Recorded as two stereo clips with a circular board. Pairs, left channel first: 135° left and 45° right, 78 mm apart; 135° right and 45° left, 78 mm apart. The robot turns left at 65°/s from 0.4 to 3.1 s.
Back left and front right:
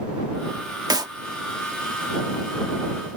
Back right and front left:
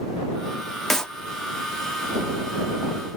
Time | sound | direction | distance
0.9 | a clap | 50° right | ?